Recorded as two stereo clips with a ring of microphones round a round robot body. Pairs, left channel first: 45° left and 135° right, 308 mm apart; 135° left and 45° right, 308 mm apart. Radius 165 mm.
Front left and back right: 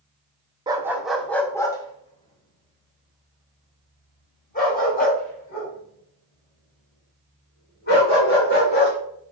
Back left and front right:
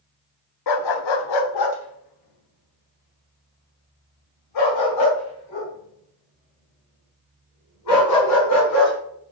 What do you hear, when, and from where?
0.7 s a dog barking: 150° left, 0.6 m; by 8.9 s 105° left, 4.5 m